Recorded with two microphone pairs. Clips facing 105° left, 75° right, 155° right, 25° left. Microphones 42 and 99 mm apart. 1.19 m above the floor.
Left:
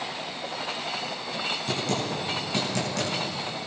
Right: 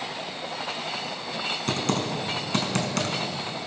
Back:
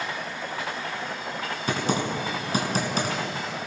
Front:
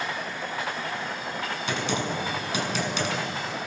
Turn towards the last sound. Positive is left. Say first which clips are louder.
# right 3 dB, back 3 dB
turn(degrees=-105)